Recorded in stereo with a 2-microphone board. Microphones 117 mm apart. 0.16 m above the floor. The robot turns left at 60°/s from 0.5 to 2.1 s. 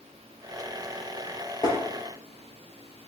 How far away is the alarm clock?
I don't hear an alarm clock.